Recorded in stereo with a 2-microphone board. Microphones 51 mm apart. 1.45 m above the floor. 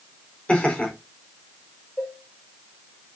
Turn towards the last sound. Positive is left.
turn(degrees=25)  # may be behind; listen again after turning